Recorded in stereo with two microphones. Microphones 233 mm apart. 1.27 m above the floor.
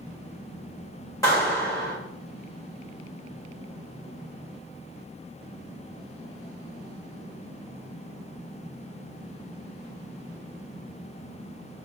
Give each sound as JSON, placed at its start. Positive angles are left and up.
{"t": 1.2, "sound": "a clap", "side_deg": 15, "distance_m": 3.0}